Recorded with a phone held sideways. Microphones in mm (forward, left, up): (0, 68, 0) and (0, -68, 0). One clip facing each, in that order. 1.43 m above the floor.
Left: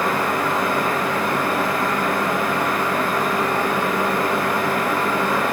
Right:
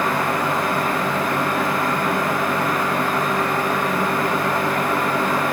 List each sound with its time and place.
0.0 s a fan: 50° right (ahead or behind), 1.7 m